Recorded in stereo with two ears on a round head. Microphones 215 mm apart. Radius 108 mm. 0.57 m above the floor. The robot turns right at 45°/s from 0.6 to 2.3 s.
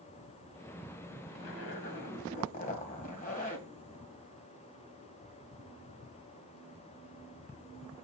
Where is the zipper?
100° left, 2 m; by 3.7 s 145° left, 2 m.